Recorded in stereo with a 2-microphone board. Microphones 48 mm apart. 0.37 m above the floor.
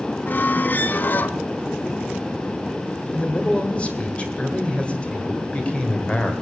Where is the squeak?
40° left (ahead or behind), 0.5 m.